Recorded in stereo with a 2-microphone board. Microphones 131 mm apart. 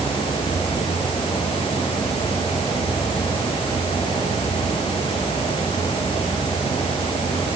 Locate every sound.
Only background noise.